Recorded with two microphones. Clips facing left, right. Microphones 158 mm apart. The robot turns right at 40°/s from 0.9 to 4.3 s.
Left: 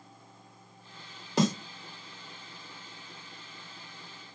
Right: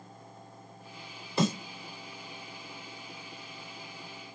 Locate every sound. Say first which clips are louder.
1.4 s a snare drum: left 2 dB; 75° left (ahead or behind), 2 m